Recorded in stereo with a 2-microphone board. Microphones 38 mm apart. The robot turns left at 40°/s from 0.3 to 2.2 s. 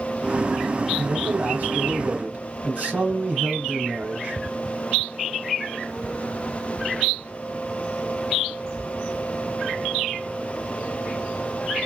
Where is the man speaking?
65° right, 1.8 m; by 4.4 s 115° right, 1.8 m.